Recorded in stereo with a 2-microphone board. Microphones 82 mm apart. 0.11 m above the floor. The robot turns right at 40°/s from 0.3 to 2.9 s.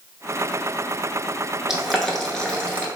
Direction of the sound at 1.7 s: 5° right (ahead or behind).